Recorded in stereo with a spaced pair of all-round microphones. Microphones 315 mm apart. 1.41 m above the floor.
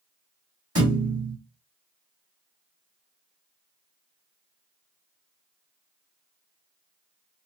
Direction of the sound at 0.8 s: 50° right (ahead or behind).